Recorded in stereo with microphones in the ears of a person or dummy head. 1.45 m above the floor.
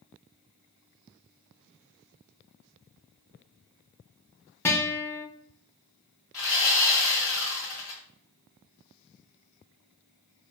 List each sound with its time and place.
4.7 s a guitar: 10° left (ahead or behind), 0.6 m
6.3 s sawing: 10° left (ahead or behind), 1.2 m